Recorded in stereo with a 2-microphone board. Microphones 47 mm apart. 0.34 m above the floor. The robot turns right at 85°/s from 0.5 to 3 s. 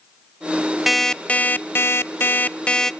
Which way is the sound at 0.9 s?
5° right.